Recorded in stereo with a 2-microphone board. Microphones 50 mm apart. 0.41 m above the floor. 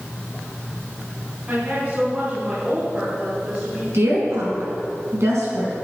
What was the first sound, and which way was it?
A woman speaking, 30° right (ahead or behind).